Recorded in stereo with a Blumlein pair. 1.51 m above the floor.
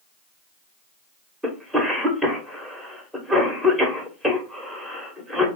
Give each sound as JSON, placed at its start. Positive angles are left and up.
{"t": 1.4, "sound": "a cough", "azimuth_deg": -5, "distance_m": 1.3}